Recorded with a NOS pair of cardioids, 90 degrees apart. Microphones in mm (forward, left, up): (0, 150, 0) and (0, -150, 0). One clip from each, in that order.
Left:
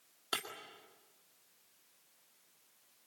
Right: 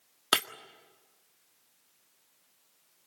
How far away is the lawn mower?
No lawn mower in this recording.